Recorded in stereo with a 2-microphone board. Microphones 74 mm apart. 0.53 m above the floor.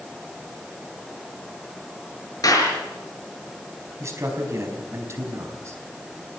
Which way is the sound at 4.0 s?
40° right (ahead or behind).